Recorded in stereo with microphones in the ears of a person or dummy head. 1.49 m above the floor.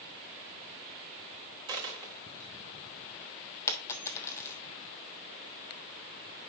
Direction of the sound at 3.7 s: 15° left (ahead or behind).